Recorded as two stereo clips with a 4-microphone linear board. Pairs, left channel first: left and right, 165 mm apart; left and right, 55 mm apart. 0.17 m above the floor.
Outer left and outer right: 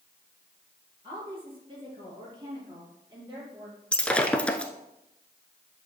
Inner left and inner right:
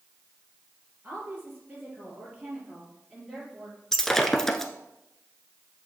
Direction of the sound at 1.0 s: 35° right (ahead or behind).